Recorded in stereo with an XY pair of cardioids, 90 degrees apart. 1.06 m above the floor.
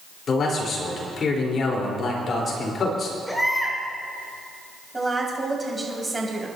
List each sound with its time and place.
0.3 s a man speaking: 55° left, 4 m
3.3 s a baby crying: 5° left, 5.5 m
4.9 s a woman speaking: 20° right, 5.5 m